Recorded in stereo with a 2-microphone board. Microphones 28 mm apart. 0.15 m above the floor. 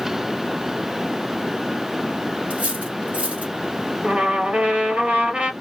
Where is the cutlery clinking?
60° right (ahead or behind), 2.5 m.